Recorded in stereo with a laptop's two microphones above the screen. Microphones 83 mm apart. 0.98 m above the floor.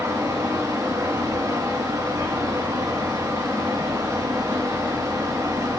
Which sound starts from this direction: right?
A fan, at 0.0 s.